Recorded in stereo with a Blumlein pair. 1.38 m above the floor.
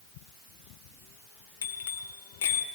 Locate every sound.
1.6 s a bicycle bell: 55° left, 3 m